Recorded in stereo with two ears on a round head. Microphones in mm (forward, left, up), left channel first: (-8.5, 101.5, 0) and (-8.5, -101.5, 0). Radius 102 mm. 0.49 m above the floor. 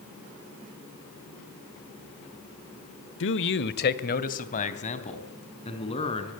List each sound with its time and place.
3.2 s a man speaking: 60° left (ahead or behind), 1.3 m; by 6.3 s 25° left (ahead or behind), 5 m